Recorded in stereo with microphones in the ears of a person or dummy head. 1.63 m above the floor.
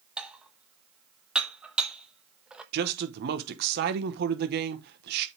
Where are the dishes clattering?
5° right (ahead or behind), 1.1 m.